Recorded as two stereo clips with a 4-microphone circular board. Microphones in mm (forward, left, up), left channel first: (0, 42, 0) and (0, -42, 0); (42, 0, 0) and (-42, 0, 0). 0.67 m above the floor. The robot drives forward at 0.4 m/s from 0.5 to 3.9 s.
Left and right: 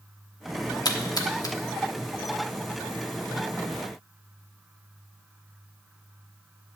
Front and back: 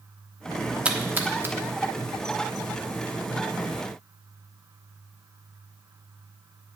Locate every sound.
0.8 s a splash: 105° left, 1.0 m; by 1.6 s 125° left, 1.1 m